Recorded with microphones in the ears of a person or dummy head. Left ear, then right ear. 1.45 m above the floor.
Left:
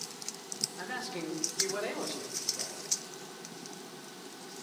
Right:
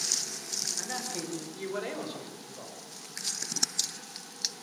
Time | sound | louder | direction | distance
0.8 | a man speaking | right 3 dB | centre (ahead or behind) | 5.5 m